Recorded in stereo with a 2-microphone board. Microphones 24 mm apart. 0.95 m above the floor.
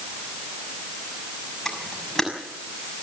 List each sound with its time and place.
1.6 s a camera shutter: 10° left (ahead or behind), 6 m